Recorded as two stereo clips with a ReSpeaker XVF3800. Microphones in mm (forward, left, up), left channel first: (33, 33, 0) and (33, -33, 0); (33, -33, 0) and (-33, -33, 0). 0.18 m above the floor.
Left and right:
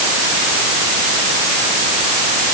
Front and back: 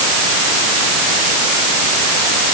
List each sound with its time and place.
Only background noise.